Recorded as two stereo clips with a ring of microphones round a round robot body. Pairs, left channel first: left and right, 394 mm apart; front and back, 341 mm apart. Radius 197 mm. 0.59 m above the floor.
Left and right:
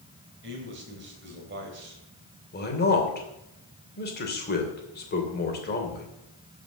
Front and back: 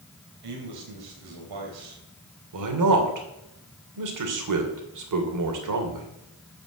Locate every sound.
0.4 s a man speaking: 150° right, 3 m
2.5 s a man speaking: 155° left, 2.5 m